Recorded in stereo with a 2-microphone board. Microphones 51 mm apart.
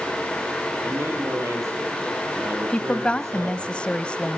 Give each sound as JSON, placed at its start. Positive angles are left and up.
{"t": 0.8, "sound": "a man speaking", "side_deg": -65, "distance_m": 9.0}
{"t": 2.7, "sound": "a woman speaking", "side_deg": 20, "distance_m": 1.0}